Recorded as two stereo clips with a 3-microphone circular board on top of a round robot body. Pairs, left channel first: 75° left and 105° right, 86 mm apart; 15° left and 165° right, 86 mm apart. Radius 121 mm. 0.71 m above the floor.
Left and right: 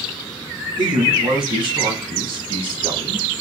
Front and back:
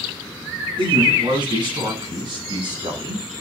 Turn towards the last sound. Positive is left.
turn(degrees=-130)